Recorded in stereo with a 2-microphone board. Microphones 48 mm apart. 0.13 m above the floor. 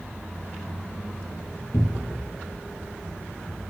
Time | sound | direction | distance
1.7 | a cupboard door | 75° left (ahead or behind) | 1.2 m